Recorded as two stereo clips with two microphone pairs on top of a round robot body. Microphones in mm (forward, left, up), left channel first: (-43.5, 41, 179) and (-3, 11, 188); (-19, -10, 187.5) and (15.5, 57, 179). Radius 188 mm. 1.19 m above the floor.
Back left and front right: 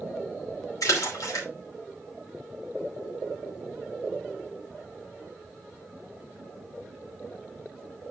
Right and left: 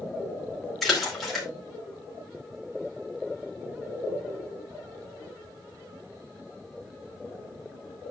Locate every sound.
0.8 s a splash: 155° left, 2.5 m